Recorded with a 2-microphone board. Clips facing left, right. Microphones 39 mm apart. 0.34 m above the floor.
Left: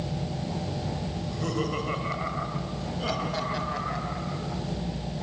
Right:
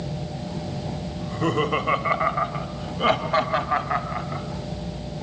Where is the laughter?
40° right (ahead or behind), 1.9 m; by 4.4 s 45° right (ahead or behind), 3 m.